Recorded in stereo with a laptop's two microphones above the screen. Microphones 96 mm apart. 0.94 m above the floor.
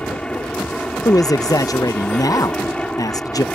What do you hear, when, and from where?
0.0 s an aircraft: 10° left (ahead or behind)
1.1 s a man speaking: 40° left (ahead or behind)